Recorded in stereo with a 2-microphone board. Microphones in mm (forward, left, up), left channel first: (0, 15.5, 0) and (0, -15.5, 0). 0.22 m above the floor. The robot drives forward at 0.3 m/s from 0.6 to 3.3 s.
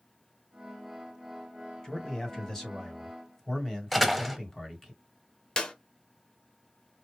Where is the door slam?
Centre (ahead or behind), 0.6 m.